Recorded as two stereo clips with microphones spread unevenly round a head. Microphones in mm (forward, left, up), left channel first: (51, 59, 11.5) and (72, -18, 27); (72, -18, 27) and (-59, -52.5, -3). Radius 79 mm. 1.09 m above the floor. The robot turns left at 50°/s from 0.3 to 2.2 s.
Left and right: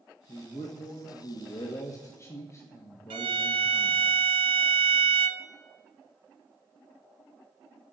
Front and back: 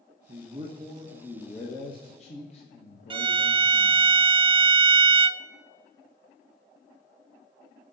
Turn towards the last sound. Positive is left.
turn(degrees=-115)